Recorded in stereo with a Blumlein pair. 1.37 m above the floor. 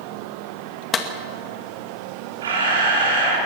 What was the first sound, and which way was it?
A clap, 20° left.